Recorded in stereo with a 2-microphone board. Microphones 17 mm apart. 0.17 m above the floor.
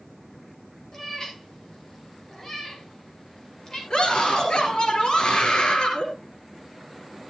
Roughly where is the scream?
Left.